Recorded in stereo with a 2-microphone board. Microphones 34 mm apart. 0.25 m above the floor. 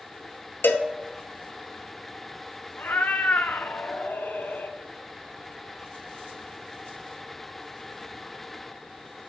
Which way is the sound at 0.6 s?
85° left.